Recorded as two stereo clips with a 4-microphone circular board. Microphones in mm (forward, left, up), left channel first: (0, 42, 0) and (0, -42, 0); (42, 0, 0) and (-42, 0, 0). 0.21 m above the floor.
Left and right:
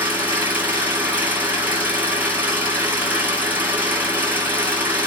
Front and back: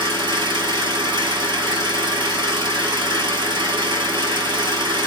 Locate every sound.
0.0 s an engine running: 160° right, 1.3 m